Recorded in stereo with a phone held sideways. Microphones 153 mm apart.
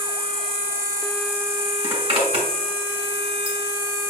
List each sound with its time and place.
0.0 s an insect: 65° left (ahead or behind), 2.5 m
1.8 s a zipper: 35° right (ahead or behind), 2 m